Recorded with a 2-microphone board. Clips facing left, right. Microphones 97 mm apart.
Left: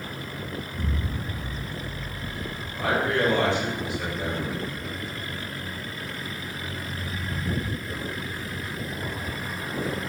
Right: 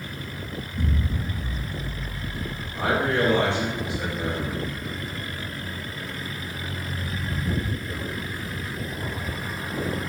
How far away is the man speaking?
About 1.6 m.